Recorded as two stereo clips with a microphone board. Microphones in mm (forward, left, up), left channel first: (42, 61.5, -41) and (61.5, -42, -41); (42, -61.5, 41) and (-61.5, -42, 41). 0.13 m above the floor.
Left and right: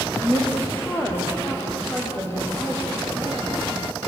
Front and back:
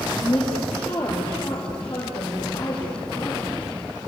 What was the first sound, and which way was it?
A woman speaking, 30° left.